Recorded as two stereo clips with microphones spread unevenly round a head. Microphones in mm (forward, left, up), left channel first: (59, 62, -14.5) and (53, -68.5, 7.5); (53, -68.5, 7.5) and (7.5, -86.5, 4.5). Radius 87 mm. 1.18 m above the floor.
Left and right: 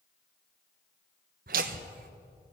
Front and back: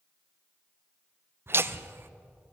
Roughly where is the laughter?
Behind right.